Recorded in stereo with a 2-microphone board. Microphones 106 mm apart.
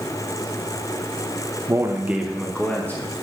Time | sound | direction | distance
1.7 | a man speaking | 30° right (ahead or behind) | 0.6 m